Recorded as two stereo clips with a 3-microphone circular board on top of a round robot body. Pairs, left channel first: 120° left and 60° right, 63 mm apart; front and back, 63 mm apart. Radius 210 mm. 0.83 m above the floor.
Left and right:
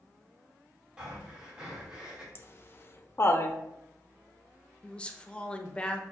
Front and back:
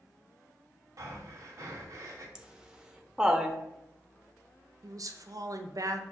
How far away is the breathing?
About 0.6 m.